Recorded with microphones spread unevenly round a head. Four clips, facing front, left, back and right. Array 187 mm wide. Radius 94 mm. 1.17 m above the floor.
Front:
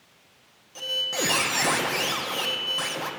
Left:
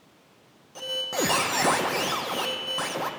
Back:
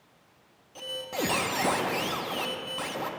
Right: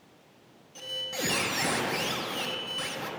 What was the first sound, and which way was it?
A squeak, 85° left.